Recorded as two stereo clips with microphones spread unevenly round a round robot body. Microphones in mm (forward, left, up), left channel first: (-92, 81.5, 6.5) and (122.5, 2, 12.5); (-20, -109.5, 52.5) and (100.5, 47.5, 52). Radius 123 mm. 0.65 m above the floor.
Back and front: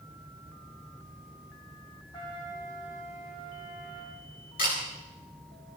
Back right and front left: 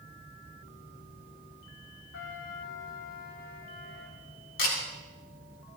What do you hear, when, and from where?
2.1 s a trumpet: 130° right, 7.5 m
4.6 s a camera shutter: 145° right, 6 m